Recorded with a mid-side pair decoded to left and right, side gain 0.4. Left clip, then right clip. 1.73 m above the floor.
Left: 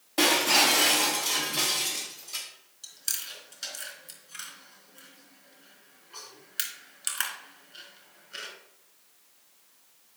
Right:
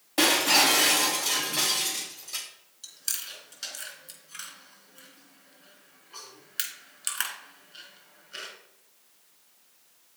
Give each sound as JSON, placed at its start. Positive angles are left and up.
{"t": 0.2, "sound": "breaking glass", "azimuth_deg": -35, "distance_m": 5.0}
{"t": 2.8, "sound": "chewing", "azimuth_deg": -10, "distance_m": 3.5}